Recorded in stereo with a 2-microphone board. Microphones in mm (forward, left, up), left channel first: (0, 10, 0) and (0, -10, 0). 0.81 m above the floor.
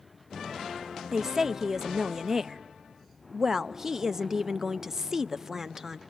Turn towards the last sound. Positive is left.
turn(degrees=-25)  # may be behind; listen again after turning